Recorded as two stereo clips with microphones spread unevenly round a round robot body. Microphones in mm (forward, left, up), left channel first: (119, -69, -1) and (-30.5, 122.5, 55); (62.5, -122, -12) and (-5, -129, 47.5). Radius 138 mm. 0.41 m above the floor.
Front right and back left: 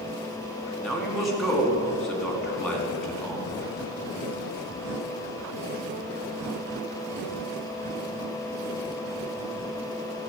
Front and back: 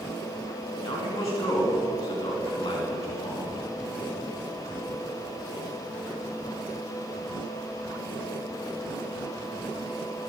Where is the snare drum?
No snare drum in this recording.